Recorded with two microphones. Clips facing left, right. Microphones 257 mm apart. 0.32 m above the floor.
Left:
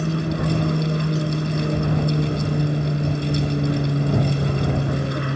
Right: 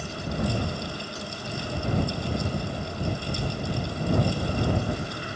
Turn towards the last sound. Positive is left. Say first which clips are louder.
# left 7 dB
turn(degrees=65)  # may be behind; listen again after turning